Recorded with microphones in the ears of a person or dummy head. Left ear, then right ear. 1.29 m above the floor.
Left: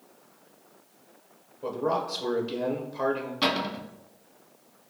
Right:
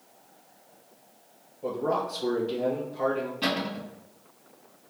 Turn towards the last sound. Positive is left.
turn(degrees=60)  # may be behind; listen again after turning